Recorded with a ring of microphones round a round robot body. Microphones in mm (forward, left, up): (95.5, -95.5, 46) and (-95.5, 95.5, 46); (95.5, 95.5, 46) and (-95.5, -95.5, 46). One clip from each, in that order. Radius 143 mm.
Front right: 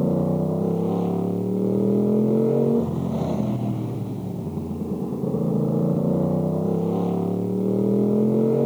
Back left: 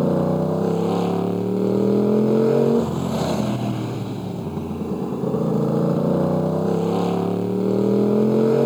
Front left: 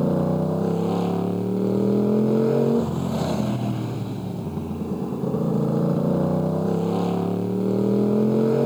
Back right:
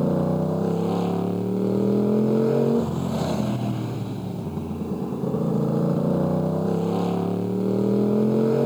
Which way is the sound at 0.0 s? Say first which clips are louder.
Back left 3 dB, front left 1 dB; 135° left.